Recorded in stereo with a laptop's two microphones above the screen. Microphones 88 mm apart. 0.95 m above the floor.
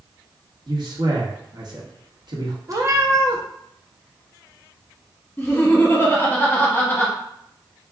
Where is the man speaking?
60° right (ahead or behind), 1.1 m.